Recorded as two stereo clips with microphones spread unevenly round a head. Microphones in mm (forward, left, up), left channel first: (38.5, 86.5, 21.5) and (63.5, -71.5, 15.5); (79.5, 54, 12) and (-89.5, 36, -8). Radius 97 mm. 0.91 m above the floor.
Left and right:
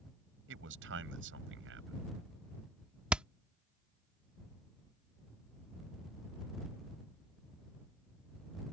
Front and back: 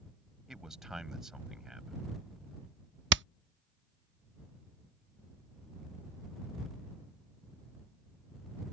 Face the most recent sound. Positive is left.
turn(degrees=-165)